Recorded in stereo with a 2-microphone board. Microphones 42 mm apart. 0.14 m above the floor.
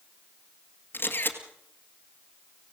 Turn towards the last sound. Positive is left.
turn(degrees=55)  # may be behind; listen again after turning